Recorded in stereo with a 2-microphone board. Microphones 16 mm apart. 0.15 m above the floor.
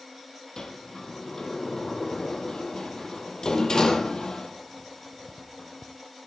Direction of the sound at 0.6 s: 40° left (ahead or behind).